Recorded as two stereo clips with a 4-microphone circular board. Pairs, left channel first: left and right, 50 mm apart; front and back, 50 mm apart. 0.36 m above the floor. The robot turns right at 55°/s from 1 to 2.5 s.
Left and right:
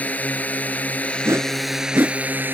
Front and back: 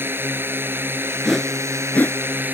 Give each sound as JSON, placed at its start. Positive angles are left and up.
{"t": 0.0, "sound": "a drone", "azimuth_deg": 145}
{"t": 1.2, "sound": "a whoosh", "azimuth_deg": -90}